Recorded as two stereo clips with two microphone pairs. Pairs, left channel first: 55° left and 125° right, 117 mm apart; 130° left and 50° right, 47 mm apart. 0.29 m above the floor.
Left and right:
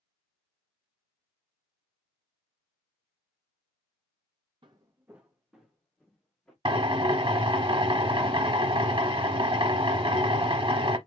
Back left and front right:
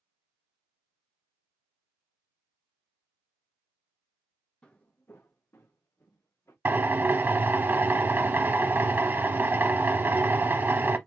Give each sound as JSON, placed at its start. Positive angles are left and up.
{"t": 4.6, "sound": "footsteps", "azimuth_deg": -165, "distance_m": 0.7}
{"t": 6.7, "sound": "a drill", "azimuth_deg": -90, "distance_m": 0.7}